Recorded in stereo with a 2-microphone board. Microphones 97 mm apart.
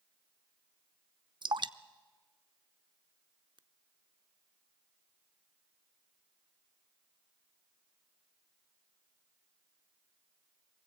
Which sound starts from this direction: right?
Dripping, at 1.4 s.